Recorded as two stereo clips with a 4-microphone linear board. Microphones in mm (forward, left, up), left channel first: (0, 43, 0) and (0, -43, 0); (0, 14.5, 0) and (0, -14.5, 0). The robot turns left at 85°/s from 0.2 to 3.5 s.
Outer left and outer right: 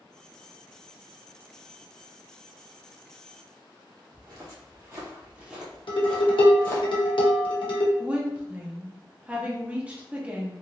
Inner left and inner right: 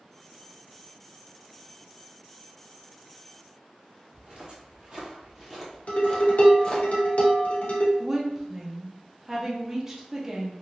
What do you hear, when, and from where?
4.1 s footsteps: 55° right (ahead or behind), 1.9 m; by 6.9 s 30° left (ahead or behind), 1.7 m
5.9 s dishes clattering: 75° left (ahead or behind), 0.9 m
8.0 s a woman speaking: 15° right (ahead or behind), 0.8 m